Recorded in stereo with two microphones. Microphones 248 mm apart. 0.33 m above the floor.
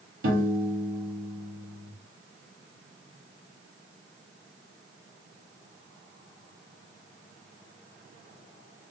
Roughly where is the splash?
No splash in this recording.